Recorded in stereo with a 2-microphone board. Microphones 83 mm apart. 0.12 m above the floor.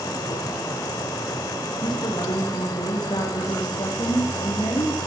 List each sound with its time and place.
1.8 s a woman speaking: 65° left (ahead or behind), 8 m